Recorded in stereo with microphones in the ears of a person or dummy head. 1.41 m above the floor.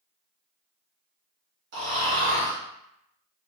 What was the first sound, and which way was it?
Snoring, 55° right (ahead or behind).